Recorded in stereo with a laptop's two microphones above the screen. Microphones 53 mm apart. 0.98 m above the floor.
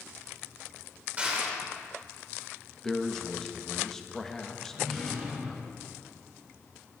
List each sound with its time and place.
1.2 s crushing: 25° right (ahead or behind), 1.7 m
2.8 s a man speaking: 10° left (ahead or behind), 1.0 m
4.7 s a drawer: 5° left (ahead or behind), 2.5 m